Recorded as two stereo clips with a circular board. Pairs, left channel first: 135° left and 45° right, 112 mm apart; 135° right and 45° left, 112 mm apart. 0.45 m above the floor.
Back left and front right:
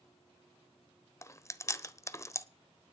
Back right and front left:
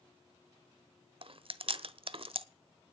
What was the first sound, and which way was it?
Chewing, 75° left.